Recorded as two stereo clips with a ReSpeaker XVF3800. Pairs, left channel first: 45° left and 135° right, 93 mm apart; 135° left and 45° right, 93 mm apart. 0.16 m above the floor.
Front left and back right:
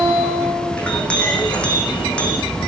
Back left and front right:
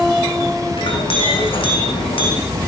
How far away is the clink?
About 6 m.